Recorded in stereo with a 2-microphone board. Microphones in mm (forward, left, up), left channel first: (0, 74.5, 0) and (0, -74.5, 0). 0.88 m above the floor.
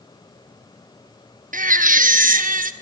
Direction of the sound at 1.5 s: 65° right (ahead or behind).